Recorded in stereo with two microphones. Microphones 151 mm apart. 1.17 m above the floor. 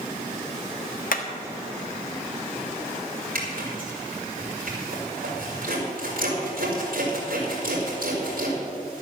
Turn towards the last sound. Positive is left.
turn(degrees=-75)  # may be behind; listen again after turning